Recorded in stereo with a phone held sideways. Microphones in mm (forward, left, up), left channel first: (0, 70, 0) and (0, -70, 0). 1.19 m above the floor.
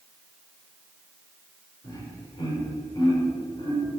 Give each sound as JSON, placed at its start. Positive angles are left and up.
{"t": 1.8, "sound": "laughter", "side_deg": 35, "distance_m": 4.5}